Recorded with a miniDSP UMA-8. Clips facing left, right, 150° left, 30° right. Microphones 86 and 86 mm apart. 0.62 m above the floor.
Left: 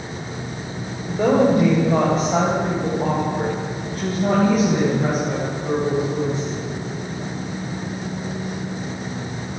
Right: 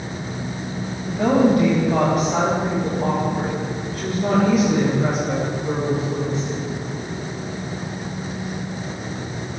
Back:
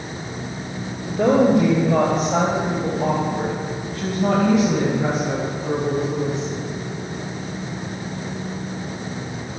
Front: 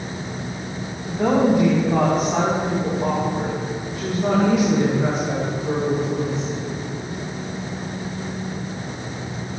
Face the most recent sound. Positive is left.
turn(degrees=135)